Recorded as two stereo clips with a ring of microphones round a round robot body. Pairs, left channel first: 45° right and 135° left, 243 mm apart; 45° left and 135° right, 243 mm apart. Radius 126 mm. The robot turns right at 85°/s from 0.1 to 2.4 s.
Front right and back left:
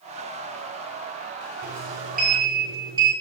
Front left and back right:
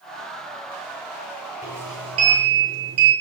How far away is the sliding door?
About 9.5 m.